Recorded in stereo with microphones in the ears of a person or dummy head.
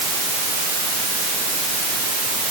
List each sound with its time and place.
Only background noise.